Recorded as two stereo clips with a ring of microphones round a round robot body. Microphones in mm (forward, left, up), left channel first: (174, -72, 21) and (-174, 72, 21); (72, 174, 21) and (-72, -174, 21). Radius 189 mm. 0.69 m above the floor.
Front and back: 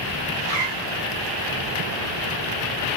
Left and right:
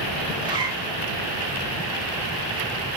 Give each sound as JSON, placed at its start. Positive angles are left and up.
{"t": 0.3, "sound": "a zipper", "azimuth_deg": 170, "distance_m": 0.9}